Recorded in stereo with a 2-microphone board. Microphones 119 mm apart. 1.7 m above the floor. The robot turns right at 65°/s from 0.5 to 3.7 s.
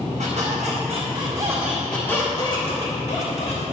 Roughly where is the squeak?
Right.